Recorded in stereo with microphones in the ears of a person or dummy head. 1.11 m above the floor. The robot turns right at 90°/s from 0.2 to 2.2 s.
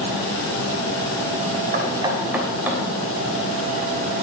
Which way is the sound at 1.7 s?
50° right (ahead or behind).